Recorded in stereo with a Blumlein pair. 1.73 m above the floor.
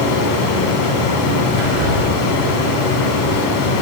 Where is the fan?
45° left, 3.5 m.